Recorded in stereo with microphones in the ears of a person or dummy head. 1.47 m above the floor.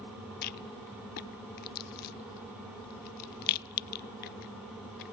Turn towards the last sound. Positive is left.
turn(degrees=45)  # may be behind; listen again after turning